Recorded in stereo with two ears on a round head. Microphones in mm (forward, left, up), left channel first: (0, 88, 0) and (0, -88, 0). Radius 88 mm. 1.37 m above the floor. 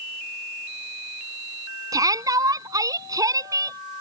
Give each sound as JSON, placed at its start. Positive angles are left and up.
{"t": 1.9, "sound": "a shout", "side_deg": -20}